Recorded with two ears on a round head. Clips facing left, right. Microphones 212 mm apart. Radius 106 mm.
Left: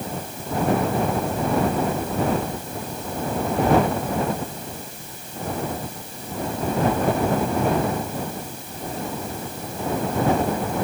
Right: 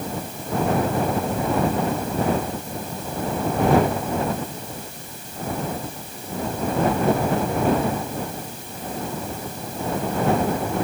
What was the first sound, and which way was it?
Only background noise.